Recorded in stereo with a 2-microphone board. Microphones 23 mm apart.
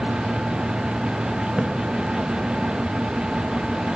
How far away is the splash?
About 1.0 m.